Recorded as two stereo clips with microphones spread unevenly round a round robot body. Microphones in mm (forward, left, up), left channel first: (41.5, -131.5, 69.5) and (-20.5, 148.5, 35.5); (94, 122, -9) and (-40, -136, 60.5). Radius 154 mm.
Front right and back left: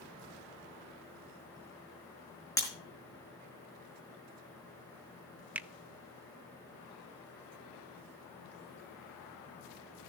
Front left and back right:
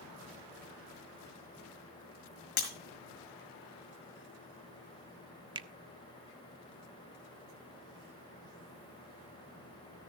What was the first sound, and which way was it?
Breaking glass, straight ahead.